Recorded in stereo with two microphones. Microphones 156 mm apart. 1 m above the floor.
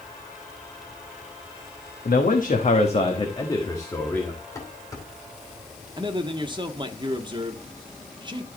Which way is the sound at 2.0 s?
70° left (ahead or behind).